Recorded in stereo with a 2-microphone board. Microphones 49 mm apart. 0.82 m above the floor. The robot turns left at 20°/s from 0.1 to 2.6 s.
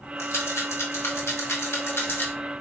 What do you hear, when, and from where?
0.2 s a rattle: 55° left (ahead or behind), 1.5 m; by 2.3 s 50° left (ahead or behind), 1.5 m